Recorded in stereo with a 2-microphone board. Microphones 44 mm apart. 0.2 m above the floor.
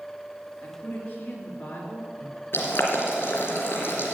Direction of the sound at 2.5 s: 60° left (ahead or behind).